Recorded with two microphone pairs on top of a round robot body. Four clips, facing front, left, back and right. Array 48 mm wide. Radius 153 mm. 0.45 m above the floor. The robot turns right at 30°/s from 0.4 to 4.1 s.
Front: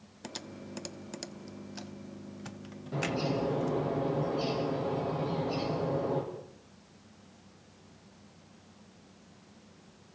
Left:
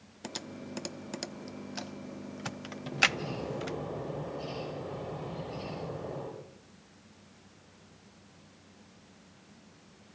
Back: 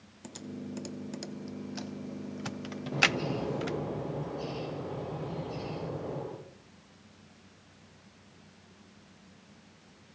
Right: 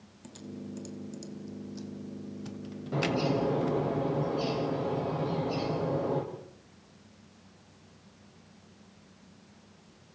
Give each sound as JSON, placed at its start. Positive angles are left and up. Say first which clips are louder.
{"t": 0.2, "sound": "typing on a keyboard", "louder": "left 1 dB, back 2 dB", "azimuth_deg": 55, "distance_m": 0.7}
{"t": 2.9, "sound": "a bird", "louder": "right 1 dB, back 3 dB", "azimuth_deg": -85, "distance_m": 7.0}